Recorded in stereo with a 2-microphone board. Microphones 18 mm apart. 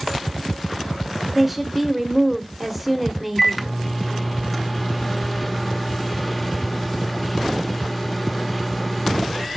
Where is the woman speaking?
10° right (ahead or behind), 1.2 m.